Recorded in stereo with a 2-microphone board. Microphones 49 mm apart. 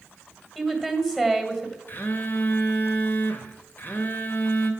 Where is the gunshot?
I don't hear a gunshot.